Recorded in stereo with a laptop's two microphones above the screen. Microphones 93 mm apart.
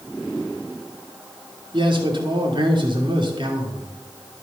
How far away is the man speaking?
About 2.5 m.